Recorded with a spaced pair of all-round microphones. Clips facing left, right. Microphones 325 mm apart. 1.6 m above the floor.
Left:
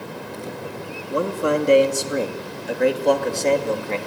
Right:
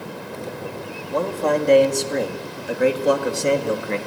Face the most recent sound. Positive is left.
turn(degrees=-20)  # may be behind; listen again after turning